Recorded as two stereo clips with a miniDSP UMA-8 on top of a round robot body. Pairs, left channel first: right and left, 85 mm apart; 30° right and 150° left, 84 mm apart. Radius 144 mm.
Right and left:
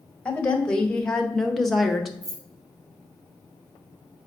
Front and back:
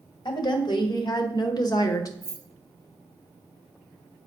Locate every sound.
0.2 s a woman speaking: 10° right, 2 m; by 2.1 s 5° left, 1.3 m
2.2 s keys jangling: 75° left, 3 m